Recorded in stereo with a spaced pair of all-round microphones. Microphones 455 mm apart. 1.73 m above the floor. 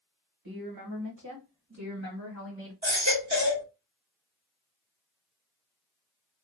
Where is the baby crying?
35° right (ahead or behind), 1.1 m.